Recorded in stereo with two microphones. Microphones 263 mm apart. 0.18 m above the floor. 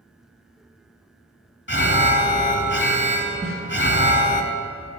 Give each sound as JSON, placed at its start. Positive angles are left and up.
{"t": 1.7, "sound": "an alarm", "side_deg": 45, "distance_m": 0.9}
{"t": 3.4, "sound": "a snare drum", "side_deg": -25, "distance_m": 4.0}